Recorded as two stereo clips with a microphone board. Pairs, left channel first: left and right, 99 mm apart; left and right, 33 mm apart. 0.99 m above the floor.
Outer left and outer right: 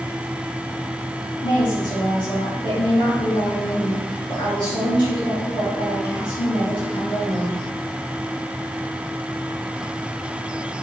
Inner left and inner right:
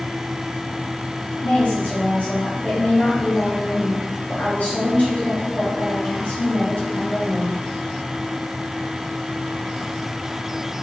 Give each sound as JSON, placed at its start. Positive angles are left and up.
{"t": 1.4, "sound": "a woman speaking", "side_deg": 50, "distance_m": 1.9}